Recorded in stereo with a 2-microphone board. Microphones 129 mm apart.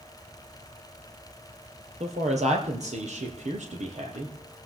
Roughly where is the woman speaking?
Right.